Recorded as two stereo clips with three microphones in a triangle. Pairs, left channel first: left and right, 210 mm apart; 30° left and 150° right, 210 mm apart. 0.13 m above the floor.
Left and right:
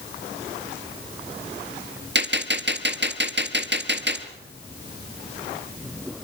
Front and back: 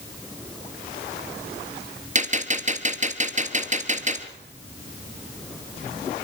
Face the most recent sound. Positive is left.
turn(degrees=-100)